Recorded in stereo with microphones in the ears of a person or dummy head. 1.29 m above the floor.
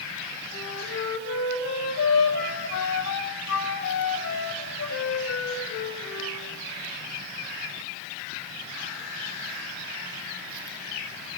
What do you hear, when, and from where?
0.5 s a flute: 75° left (ahead or behind), 5.5 m